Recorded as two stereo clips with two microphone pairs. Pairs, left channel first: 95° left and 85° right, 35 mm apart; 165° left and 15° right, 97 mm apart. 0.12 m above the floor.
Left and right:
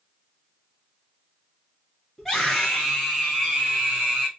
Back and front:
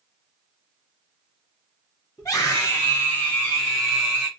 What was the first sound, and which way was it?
A scream, straight behind.